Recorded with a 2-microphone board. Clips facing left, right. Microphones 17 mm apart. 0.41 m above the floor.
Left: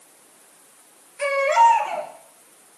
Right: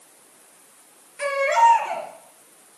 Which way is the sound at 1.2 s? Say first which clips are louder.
Left 1 dB; 25° right (ahead or behind).